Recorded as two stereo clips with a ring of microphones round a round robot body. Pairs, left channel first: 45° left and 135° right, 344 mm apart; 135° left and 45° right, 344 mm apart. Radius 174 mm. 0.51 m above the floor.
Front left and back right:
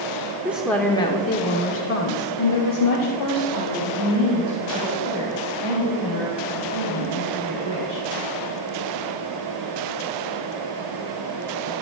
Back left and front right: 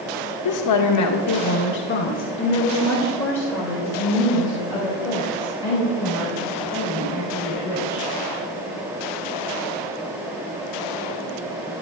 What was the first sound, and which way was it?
A woman speaking, 140° left.